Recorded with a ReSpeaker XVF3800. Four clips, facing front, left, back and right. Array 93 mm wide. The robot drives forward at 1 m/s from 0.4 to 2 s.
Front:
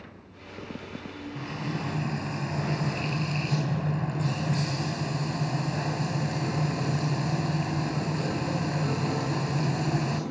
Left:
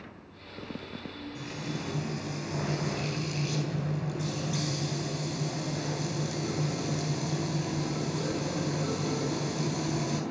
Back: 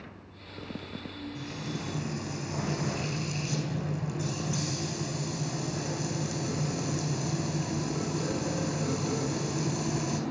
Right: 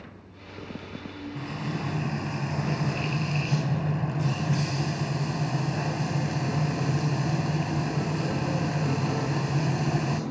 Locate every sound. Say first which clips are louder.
1.4 s frying: right 5 dB, front 6 dB; 45° right, 4 m; by 10.2 s 50° right, 3.5 m